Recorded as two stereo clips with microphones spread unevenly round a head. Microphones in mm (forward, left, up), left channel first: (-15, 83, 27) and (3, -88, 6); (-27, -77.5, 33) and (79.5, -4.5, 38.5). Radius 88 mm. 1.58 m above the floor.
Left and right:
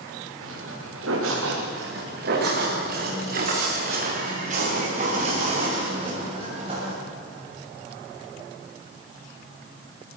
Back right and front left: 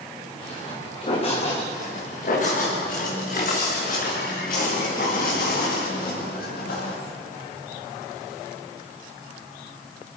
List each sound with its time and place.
0.4 s footsteps: 100° right, 8.5 m
1.7 s footsteps: 120° right, 7.5 m; by 6.9 s 145° right, 10.5 m